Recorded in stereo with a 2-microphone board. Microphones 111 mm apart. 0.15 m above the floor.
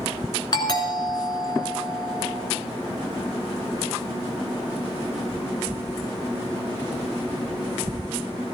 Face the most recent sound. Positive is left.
turn(degrees=40)  # may be behind; listen again after turning